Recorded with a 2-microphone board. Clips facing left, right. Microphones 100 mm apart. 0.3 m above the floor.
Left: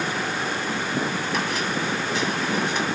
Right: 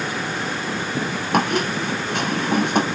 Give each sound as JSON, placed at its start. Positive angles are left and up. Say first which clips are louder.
{"t": 1.3, "sound": "a squeak", "louder": "right 10 dB", "side_deg": -60, "distance_m": 0.6}